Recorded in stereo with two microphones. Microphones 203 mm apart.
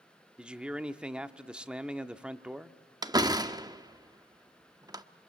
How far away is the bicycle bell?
No bicycle bell in this recording.